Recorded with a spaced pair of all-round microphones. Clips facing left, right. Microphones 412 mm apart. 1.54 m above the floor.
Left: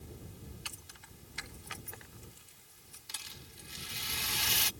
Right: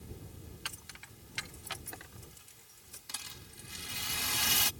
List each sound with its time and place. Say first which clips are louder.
0.7 s keys jangling: right 1 dB; 75° right (ahead or behind); by 3.0 s 80° right
3.1 s a rattle: right 1 dB; 65° right (ahead or behind)